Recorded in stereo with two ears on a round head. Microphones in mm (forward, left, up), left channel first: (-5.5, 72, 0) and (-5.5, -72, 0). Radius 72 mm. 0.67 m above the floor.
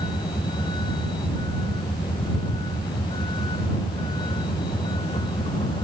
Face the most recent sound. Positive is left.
turn(degrees=30)  # may be behind; listen again after turning